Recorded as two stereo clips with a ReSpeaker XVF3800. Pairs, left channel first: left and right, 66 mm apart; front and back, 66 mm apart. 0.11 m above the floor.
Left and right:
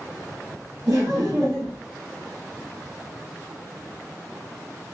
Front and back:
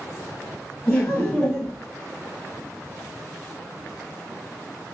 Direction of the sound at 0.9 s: 70° right.